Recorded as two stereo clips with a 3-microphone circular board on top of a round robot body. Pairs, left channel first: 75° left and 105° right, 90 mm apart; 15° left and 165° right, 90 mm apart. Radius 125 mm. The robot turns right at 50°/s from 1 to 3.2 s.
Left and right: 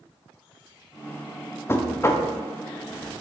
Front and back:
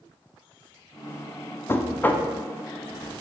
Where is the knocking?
45° left, 0.5 m; by 2.3 s 75° left, 0.5 m.